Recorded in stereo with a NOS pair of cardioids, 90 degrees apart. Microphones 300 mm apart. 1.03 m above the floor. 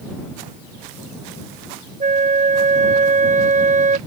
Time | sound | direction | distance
2.0 | a flute | 25° right | ?